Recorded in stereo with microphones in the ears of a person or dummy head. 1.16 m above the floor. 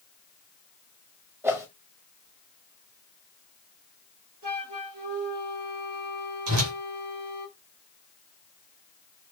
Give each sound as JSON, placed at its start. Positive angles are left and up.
{"t": 1.4, "sound": "a whoosh", "side_deg": -15, "distance_m": 0.7}
{"t": 4.4, "sound": "a flute", "side_deg": -65, "distance_m": 3.0}
{"t": 6.5, "sound": "a whoosh", "side_deg": -80, "distance_m": 2.5}